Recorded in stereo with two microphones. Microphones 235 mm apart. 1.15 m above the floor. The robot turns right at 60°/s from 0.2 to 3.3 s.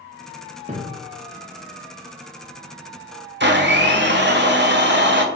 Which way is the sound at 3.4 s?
50° right (ahead or behind).